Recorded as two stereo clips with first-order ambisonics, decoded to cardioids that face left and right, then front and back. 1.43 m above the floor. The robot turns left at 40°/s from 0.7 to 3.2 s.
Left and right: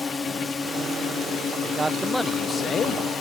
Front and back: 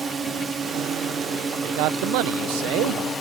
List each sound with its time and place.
0.0 s a drone: 150° left; by 3.2 s 50° left
1.6 s a man speaking: 160° right; by 3.0 s 145° left